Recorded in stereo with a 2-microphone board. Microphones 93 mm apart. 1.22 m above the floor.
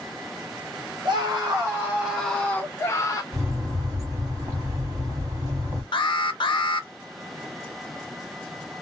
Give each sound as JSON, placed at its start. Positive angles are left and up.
{"t": 1.1, "sound": "a scream", "side_deg": -45, "distance_m": 1.2}
{"t": 3.3, "sound": "a bird", "side_deg": -30, "distance_m": 1.4}
{"t": 5.9, "sound": "an alarm", "side_deg": 60, "distance_m": 0.5}